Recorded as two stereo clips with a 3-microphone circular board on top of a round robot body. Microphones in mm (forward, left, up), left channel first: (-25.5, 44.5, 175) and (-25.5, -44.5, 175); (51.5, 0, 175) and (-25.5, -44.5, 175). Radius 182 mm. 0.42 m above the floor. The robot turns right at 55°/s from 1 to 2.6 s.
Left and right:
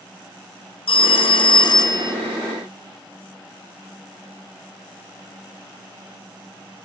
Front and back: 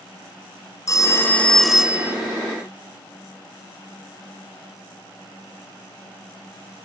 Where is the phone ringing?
85° left, 0.9 m; by 2.1 s 145° left, 0.9 m.